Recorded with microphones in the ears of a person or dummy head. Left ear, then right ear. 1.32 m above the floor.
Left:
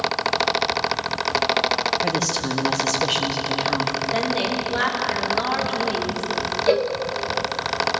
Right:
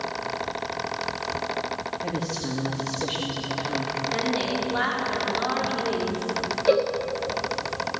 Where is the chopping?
No chopping in this recording.